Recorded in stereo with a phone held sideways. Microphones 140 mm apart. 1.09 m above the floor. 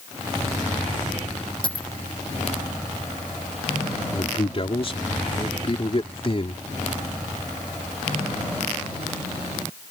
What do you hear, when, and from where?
1.6 s a dropped coin: 35° left (ahead or behind)
4.1 s a man speaking: 40° left (ahead or behind)